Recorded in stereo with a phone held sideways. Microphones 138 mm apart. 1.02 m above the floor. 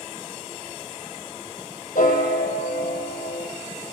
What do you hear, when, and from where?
1.9 s a piano: 75° left (ahead or behind), 8 m